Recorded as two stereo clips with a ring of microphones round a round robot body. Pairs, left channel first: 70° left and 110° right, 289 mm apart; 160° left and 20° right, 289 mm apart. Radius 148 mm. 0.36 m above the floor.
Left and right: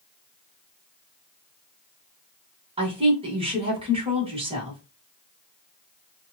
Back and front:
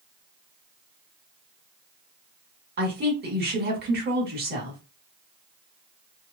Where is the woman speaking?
55° right, 1.3 m.